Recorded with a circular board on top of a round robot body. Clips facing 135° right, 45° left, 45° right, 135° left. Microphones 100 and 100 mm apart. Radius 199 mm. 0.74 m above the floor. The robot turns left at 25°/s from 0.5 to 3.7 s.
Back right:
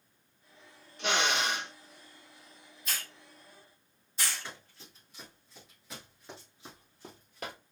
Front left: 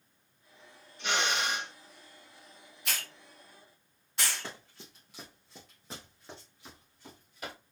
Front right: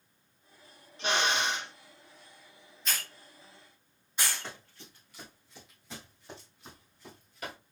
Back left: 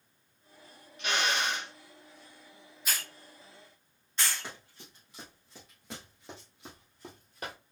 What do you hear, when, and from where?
1.0 s a drill: 105° right, 0.6 m; by 1.7 s 125° right, 0.6 m
2.9 s a hiss: 55° left, 1.5 m; by 4.5 s 35° left, 1.5 m
4.4 s running footsteps: 55° left, 1.6 m; by 7.5 s 165° right, 1.3 m